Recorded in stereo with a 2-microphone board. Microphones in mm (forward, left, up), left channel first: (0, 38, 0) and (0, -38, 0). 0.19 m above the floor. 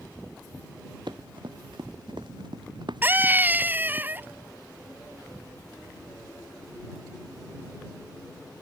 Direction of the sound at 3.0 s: 25° right (ahead or behind).